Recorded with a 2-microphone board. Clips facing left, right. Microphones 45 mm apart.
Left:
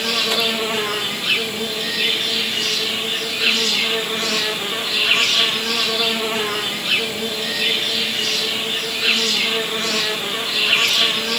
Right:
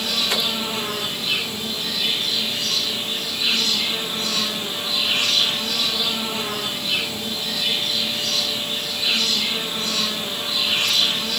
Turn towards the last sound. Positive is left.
turn(degrees=70)  # may be behind; listen again after turning